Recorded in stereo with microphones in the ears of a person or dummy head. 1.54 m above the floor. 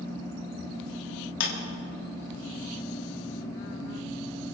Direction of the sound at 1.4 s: 70° left (ahead or behind).